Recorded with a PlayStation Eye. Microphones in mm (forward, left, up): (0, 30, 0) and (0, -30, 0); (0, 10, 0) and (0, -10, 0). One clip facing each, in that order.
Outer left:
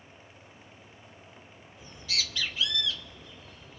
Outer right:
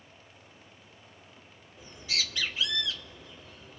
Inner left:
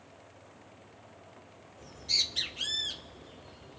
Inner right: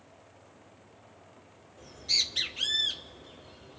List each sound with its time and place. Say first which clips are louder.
1.8 s a bird: outer right 1 dB, inner right 1 dB; 25° right (ahead or behind), 1.8 m